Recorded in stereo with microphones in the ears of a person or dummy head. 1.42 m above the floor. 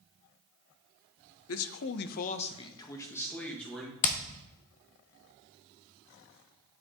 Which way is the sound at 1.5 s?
70° left (ahead or behind).